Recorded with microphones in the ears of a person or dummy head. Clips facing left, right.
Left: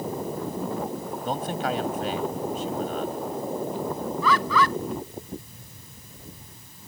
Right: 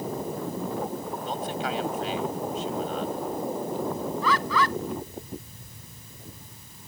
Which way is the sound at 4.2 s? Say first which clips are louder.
Left 3 dB; 80° left.